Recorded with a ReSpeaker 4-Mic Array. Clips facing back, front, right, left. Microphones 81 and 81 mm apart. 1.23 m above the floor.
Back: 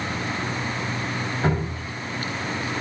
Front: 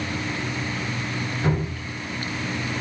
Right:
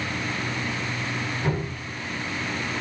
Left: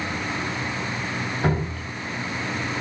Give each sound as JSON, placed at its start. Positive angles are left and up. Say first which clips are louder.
{"t": 1.4, "sound": "dripping", "louder": "even, left 3 dB", "azimuth_deg": 125, "distance_m": 9.0}